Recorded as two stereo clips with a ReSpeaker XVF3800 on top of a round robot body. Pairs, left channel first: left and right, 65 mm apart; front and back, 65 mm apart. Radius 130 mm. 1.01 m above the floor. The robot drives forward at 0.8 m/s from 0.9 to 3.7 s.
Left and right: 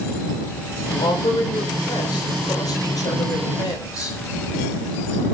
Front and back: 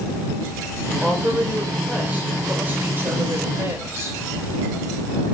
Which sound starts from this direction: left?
A woman speaking, at 1.0 s.